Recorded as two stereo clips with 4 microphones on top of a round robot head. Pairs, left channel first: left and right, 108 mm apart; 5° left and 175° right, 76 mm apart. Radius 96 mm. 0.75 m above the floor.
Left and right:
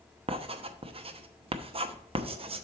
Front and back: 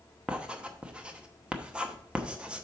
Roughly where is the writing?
Right.